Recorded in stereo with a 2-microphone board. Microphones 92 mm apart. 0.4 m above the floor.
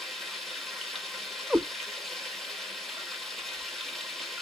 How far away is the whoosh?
No whoosh in this recording.